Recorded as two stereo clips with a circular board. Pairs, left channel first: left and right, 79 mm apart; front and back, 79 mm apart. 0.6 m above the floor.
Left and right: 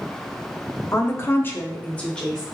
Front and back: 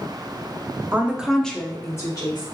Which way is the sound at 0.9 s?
130° left.